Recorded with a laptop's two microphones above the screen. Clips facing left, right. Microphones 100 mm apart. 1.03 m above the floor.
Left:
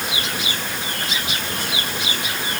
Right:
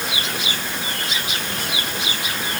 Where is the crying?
I don't hear crying.